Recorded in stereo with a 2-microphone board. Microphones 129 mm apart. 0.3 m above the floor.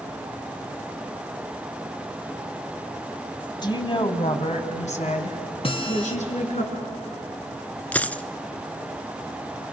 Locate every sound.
3.6 s a woman speaking: 35° left (ahead or behind), 2 m; by 6.6 s 65° left (ahead or behind), 4.5 m
5.6 s a guitar: 45° left (ahead or behind), 2 m
7.9 s a dropped coin: 10° left (ahead or behind), 0.5 m